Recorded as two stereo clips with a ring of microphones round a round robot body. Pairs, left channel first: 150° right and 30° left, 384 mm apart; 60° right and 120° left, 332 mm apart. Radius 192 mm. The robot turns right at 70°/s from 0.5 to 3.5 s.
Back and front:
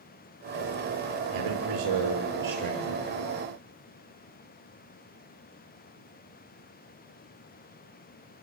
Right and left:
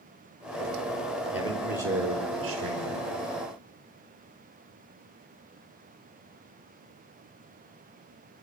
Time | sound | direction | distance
1.3 | a man speaking | 35° left | 5.5 m